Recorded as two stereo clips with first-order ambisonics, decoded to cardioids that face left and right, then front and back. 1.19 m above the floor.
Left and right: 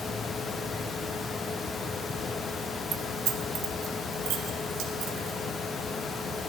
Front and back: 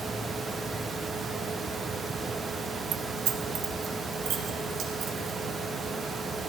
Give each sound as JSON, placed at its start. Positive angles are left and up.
{"t": 2.9, "sound": "keys jangling", "azimuth_deg": -145, "distance_m": 0.6}